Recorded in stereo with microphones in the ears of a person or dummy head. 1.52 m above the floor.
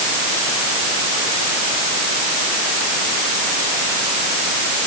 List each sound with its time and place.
Only background noise.